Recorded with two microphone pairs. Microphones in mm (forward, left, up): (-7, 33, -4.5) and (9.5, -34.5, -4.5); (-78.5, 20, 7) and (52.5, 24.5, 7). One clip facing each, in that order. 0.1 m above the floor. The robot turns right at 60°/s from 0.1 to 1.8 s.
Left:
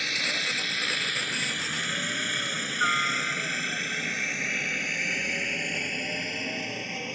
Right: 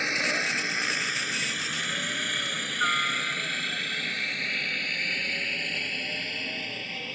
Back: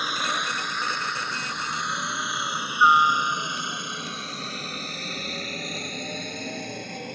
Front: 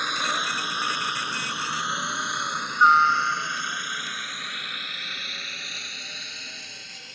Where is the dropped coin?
No dropped coin in this recording.